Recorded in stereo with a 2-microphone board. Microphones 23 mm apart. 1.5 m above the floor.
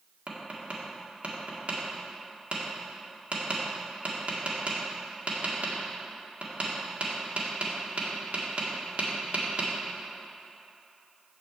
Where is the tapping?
60° right (ahead or behind), 1.7 m.